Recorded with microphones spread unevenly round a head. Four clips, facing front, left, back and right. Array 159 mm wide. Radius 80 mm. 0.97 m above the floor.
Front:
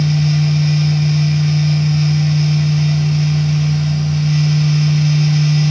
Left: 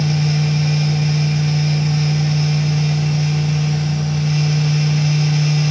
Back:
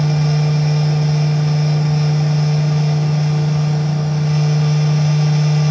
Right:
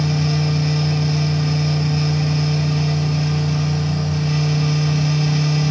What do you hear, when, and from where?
0.0 s a fan: 170° right, 1.6 m